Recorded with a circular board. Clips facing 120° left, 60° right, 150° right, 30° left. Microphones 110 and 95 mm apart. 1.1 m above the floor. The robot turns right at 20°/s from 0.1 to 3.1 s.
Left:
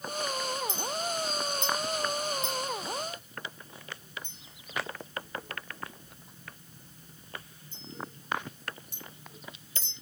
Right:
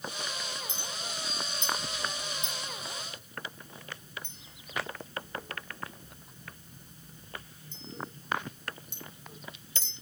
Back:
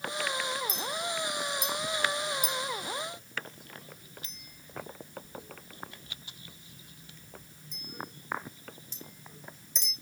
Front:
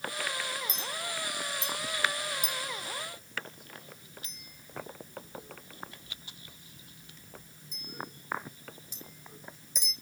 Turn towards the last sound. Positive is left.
turn(degrees=-50)